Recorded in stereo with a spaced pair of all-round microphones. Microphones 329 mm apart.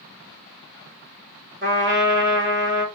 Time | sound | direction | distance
1.6 | a trumpet | 35° right (ahead or behind) | 1.6 m